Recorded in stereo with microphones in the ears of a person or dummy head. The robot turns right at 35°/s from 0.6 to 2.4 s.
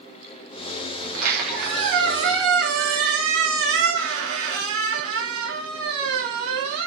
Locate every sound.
1.0 s a squeak: 130° right, 0.7 m; by 6.9 s 80° right, 0.7 m